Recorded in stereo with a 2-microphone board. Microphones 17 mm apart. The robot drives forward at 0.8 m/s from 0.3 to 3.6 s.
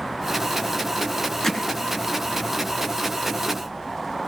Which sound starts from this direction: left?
Hammering, at 1.4 s.